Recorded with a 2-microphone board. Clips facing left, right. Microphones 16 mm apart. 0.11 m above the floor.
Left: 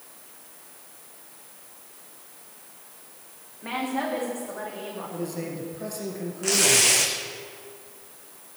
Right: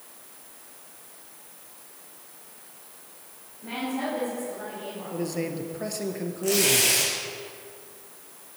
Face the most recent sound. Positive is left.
turn(degrees=25)  # may be behind; listen again after turning